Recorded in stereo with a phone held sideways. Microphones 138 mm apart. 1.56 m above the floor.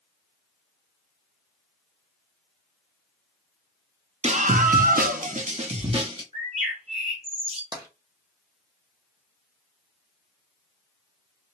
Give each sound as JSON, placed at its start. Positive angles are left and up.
{"t": 4.2, "sound": "a scream", "side_deg": -50, "distance_m": 0.6}
{"t": 6.3, "sound": "a bird", "side_deg": -45, "distance_m": 1.2}
{"t": 7.7, "sound": "tapping", "side_deg": -25, "distance_m": 0.8}